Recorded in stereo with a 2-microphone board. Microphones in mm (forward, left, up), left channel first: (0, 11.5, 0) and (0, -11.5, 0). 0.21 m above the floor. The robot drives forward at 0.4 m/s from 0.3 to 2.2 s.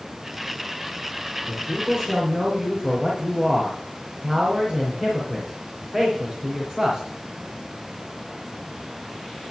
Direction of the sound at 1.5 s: 25° right (ahead or behind).